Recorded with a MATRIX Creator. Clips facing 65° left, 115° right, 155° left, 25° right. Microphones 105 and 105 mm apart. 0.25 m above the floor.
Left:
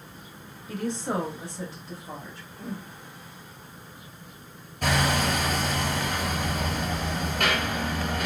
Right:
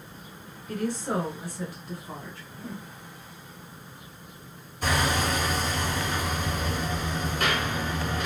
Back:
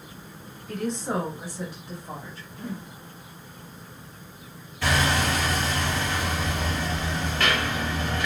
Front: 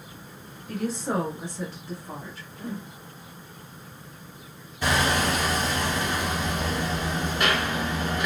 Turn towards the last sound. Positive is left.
turn(degrees=50)